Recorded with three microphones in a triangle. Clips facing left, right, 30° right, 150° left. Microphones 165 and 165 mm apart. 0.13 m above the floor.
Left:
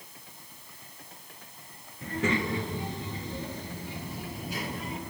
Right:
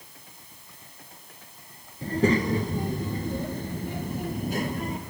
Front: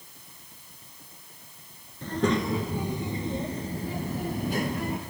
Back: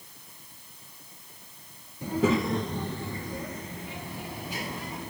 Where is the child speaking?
135° right, 1.4 m; by 5.0 s 55° right, 1.9 m.